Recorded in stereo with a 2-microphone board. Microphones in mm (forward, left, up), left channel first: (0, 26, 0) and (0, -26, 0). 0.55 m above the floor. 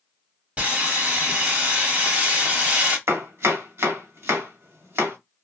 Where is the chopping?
55° right (ahead or behind), 1.3 m.